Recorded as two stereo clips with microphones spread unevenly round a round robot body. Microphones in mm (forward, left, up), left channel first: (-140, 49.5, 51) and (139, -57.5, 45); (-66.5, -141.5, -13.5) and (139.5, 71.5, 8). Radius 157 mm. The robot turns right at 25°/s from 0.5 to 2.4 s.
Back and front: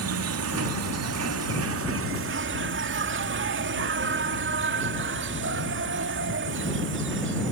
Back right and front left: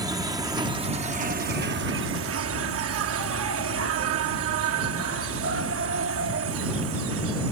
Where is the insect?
30° right; by 7.5 s 15° left.